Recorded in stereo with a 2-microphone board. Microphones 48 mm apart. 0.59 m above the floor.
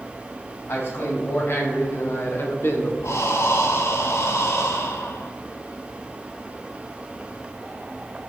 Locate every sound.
0.7 s a man speaking: 55° left (ahead or behind), 3.5 m
3.0 s breathing: 80° left, 1.2 m